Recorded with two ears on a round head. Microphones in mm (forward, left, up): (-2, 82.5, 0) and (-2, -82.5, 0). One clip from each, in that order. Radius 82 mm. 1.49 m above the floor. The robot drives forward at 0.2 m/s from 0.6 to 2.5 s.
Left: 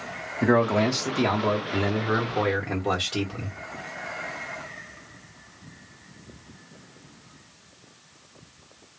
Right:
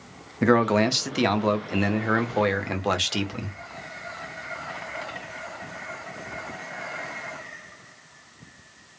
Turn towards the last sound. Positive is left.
turn(degrees=-60)  # may be behind; listen again after turning